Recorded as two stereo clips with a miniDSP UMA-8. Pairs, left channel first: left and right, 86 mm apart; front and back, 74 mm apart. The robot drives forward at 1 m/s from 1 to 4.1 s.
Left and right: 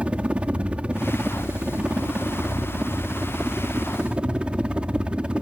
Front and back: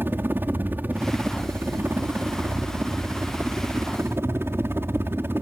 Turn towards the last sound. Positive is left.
turn(degrees=-160)